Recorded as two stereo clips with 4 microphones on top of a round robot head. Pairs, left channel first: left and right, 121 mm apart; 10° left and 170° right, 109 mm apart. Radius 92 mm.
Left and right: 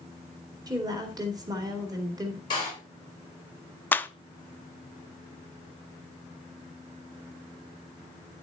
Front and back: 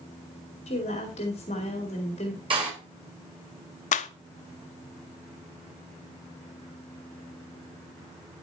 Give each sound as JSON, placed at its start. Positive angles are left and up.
{"t": 0.7, "sound": "a woman speaking", "azimuth_deg": -30, "distance_m": 2.0}
{"t": 2.5, "sound": "a door slam", "azimuth_deg": 150, "distance_m": 4.0}
{"t": 3.9, "sound": "a clap", "azimuth_deg": 15, "distance_m": 0.5}